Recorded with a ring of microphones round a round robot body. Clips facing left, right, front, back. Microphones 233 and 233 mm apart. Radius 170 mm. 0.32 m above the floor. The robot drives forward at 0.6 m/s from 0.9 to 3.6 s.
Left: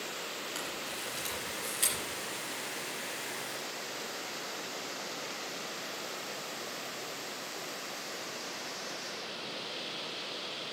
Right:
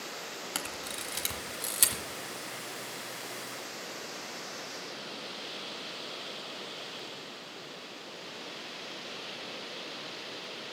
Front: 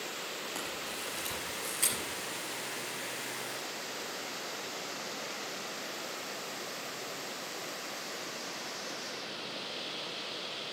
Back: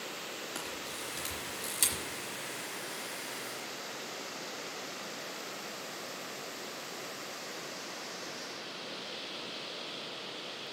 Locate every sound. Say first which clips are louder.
0.6 s a camera shutter: even, front 1 dB; 100° right, 1.1 m; by 2.0 s 130° right, 1.4 m